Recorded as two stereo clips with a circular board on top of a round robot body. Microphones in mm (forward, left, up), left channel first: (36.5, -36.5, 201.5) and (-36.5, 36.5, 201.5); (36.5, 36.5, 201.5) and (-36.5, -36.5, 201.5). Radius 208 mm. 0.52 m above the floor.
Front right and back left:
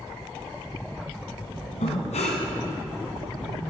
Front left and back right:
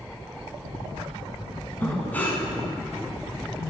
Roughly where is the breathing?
Ahead right.